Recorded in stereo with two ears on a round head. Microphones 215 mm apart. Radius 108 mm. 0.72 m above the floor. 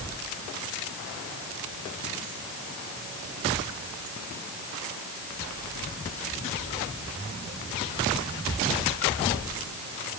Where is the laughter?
No laughter in this recording.